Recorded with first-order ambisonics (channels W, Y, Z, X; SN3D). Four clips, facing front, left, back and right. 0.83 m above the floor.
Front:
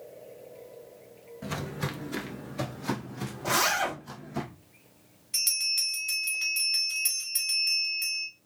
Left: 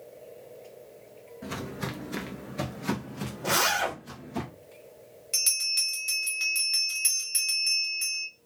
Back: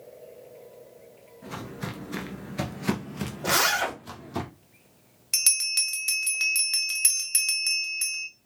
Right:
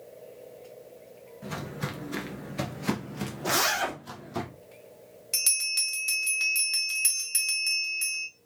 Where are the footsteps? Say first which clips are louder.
Even, front 2 dB; 15° left, 0.9 m; by 4.4 s 160° right, 1.8 m.